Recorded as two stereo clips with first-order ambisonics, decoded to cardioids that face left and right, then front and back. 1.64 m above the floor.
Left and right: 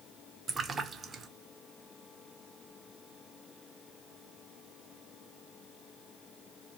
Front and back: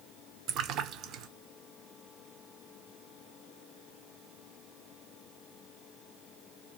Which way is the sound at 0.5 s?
155° right.